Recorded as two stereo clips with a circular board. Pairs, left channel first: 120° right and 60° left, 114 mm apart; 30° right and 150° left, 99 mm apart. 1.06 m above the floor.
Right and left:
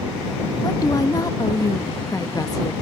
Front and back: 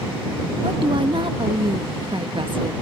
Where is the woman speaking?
175° right.